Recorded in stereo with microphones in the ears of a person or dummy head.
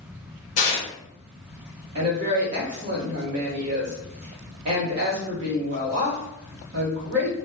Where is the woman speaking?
55° right (ahead or behind), 0.9 m.